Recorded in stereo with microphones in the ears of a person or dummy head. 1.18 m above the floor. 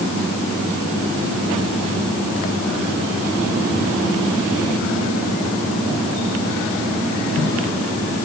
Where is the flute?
I don't hear a flute.